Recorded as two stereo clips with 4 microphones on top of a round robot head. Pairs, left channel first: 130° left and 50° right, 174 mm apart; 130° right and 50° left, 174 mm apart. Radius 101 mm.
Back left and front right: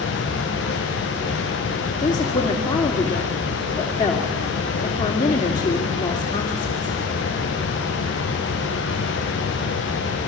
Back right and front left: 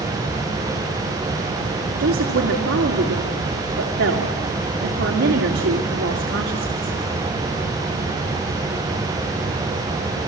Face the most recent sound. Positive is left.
turn(degrees=60)